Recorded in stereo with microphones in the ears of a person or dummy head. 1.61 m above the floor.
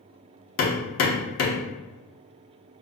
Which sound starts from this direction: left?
Hammering, at 0.6 s.